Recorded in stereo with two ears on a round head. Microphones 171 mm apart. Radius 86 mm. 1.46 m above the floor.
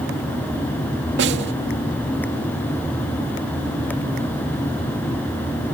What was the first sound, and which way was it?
A snare drum, 65° right (ahead or behind).